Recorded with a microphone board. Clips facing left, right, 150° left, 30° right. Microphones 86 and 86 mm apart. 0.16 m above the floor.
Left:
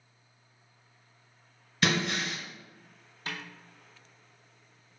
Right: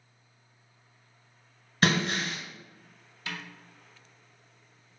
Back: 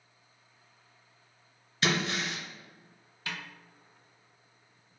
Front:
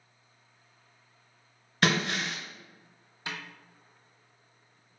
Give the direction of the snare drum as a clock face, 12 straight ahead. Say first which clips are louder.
Even, front 1 dB; 11 o'clock.